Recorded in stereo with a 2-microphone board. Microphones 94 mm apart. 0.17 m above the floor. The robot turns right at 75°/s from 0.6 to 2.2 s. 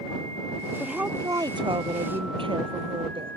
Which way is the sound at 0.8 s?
Straight behind.